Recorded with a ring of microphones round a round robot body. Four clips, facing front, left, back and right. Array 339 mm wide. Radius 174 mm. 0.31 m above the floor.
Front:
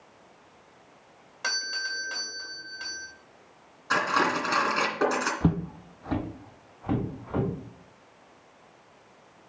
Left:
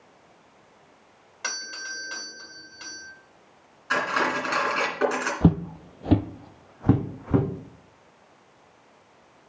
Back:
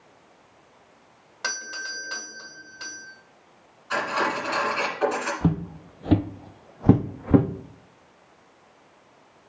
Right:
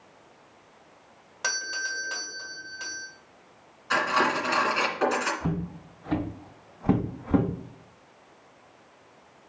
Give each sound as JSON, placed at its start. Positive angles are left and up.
{"t": 1.4, "sound": "a doorbell", "azimuth_deg": -140, "distance_m": 1.7}
{"t": 3.9, "sound": "cutlery clinking", "azimuth_deg": 15, "distance_m": 2.5}
{"t": 5.4, "sound": "footsteps", "azimuth_deg": 85, "distance_m": 0.6}